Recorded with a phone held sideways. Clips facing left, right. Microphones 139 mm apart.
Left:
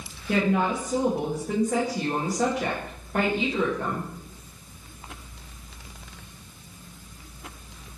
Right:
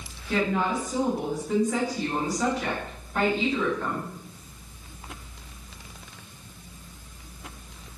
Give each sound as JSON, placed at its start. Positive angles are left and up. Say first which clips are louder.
{"t": 0.3, "sound": "a woman speaking", "louder": "left 2 dB", "side_deg": 60, "distance_m": 0.7}